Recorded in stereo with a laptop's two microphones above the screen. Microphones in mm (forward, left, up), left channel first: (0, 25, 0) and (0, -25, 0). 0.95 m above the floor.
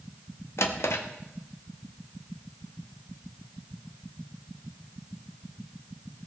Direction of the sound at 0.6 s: 60° left (ahead or behind).